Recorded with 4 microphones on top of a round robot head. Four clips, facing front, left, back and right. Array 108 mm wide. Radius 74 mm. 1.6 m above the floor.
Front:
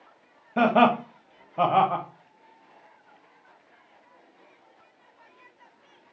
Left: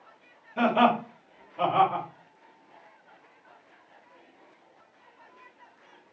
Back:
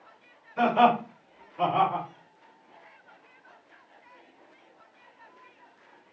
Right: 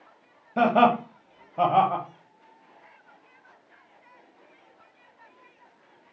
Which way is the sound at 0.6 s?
30° right.